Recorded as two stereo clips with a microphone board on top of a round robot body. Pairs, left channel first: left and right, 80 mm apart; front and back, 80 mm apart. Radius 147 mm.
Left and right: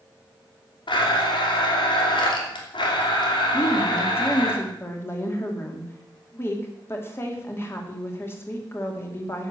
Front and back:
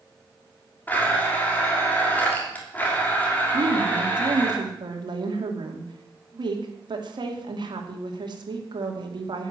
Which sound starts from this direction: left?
A blender, at 0.9 s.